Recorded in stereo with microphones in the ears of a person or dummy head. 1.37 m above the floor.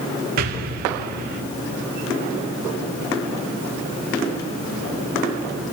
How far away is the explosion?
About 0.8 m.